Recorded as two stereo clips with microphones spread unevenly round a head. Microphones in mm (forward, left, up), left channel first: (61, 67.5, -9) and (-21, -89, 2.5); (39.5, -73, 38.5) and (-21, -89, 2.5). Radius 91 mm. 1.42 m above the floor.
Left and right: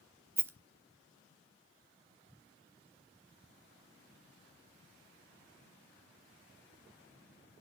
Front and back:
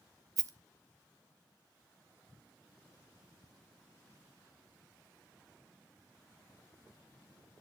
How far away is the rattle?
About 1.0 m.